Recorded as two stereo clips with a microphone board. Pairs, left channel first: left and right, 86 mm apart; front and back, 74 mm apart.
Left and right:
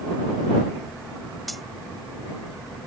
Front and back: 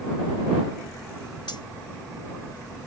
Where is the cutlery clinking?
Straight ahead.